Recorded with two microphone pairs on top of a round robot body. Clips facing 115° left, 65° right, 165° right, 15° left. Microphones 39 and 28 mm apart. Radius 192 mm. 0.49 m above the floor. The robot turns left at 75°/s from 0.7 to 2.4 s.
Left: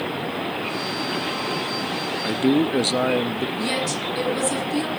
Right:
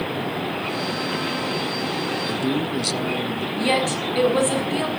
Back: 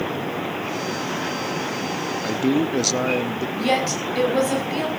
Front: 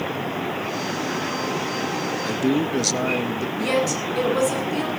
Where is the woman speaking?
115° right, 6 m.